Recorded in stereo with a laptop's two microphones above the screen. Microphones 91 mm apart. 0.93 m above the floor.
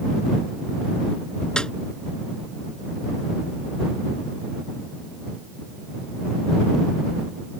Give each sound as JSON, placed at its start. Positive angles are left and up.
{"t": 1.6, "sound": "a snare drum", "side_deg": 10}